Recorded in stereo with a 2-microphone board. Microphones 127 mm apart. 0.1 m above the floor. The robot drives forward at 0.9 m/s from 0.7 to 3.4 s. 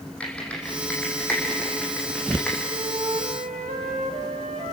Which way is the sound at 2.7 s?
75° right (ahead or behind).